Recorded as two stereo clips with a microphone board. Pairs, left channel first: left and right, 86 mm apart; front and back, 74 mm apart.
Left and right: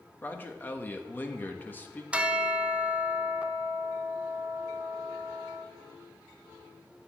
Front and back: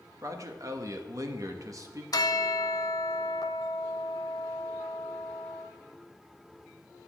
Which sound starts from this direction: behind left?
A man speaking, at 0.2 s.